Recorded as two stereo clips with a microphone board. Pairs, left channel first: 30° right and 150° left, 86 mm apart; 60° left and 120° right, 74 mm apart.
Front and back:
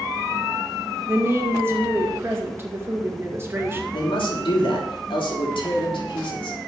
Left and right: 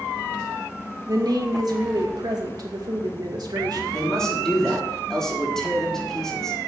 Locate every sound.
1.1 s a woman speaking: 150° right, 2 m
3.9 s a man speaking: 25° right, 3.5 m